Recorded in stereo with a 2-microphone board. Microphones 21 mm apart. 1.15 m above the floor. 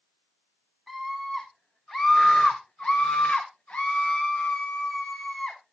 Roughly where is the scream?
Centre.